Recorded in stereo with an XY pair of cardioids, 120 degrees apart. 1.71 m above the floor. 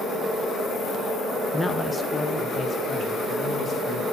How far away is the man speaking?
About 0.6 m.